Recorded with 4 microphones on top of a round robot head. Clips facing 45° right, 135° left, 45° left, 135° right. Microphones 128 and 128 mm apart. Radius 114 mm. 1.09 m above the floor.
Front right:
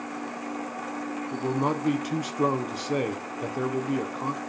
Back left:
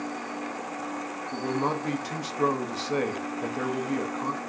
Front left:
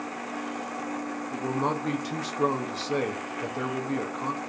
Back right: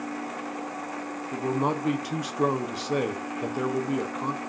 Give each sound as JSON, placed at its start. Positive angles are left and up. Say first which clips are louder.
{"t": 1.3, "sound": "a man speaking", "louder": "front right 1 dB, back right 2 dB", "azimuth_deg": -85, "distance_m": 0.7}